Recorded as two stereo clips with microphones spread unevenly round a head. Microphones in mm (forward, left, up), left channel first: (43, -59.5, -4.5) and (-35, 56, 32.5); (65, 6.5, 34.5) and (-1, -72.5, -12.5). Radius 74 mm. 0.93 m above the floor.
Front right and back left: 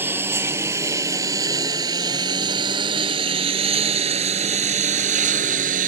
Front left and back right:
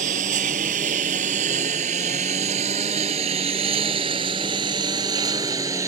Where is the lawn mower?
160° right; by 5.9 s 155° left.